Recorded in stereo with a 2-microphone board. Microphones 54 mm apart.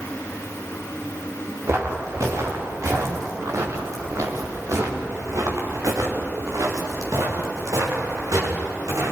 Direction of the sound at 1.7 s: 60° right (ahead or behind).